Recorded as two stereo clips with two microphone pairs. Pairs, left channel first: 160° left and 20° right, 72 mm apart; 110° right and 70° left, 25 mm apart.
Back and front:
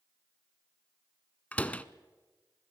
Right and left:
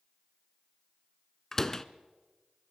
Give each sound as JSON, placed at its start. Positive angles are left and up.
{"t": 1.5, "sound": "a door slam", "azimuth_deg": -155, "distance_m": 0.7}